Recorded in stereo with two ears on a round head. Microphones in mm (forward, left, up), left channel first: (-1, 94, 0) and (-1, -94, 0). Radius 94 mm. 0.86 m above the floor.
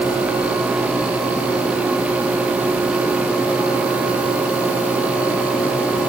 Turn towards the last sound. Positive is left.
No sound to turn to.